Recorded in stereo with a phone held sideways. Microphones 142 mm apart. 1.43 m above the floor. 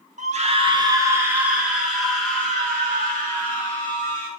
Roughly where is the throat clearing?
I don't hear throat clearing.